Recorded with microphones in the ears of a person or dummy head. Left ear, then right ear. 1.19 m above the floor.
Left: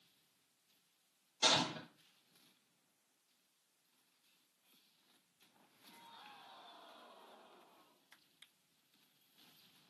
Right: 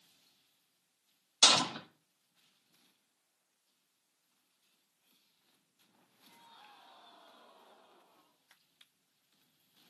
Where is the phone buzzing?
I don't hear a phone buzzing.